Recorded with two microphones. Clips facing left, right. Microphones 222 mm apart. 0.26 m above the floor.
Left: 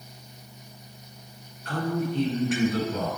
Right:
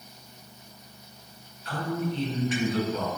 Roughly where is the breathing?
I don't hear breathing.